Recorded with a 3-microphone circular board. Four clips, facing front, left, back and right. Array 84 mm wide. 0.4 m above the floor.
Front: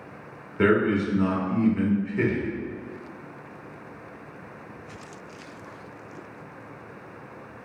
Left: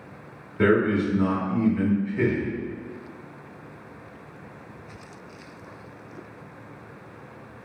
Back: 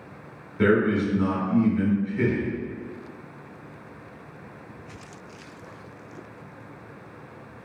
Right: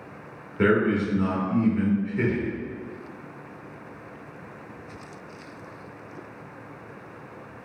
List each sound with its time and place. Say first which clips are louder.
0.6 s a man speaking: left 1 dB, even; 10° right, 1.1 m